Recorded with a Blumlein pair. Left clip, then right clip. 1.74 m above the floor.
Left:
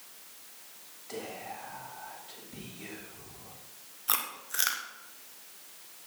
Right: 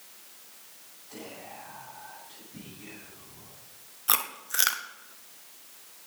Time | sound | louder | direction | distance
1.1 | whispering | left 4 dB | 35° left | 8 m
4.1 | chewing | right 4 dB | 15° right | 1.3 m